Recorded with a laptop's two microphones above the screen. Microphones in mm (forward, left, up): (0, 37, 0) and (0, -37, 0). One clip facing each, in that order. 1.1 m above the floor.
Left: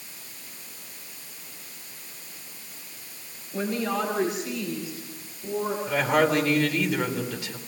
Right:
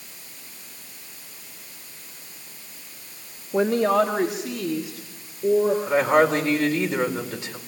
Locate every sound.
3.5 s a woman speaking: 75° right (ahead or behind), 1.4 m; by 5.8 s 80° right, 4 m
5.9 s a woman speaking: 25° right (ahead or behind), 4 m